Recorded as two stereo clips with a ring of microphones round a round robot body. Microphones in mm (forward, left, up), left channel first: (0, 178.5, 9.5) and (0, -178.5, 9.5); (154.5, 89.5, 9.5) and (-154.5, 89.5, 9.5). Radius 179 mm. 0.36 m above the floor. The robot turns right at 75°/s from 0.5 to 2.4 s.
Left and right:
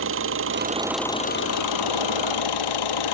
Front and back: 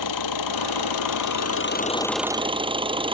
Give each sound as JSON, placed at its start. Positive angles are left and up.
{"t": 0.0, "sound": "an engine running", "azimuth_deg": -35}